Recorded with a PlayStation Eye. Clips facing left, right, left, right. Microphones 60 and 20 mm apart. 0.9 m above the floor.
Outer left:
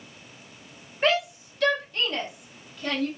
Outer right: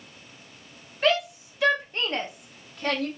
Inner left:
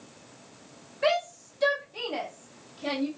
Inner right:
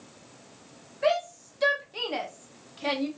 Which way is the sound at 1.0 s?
20° left (ahead or behind).